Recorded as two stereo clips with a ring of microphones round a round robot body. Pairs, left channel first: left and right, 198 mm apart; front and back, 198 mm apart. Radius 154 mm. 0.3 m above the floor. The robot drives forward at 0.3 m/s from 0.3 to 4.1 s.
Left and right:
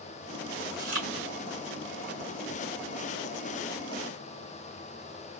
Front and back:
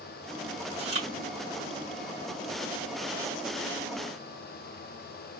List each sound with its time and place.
0.7 s chewing: 125° right, 1.4 m; by 1.1 s 130° right, 1.5 m